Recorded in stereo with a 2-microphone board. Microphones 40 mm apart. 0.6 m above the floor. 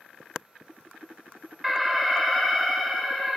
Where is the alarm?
5° right (ahead or behind), 1.3 m.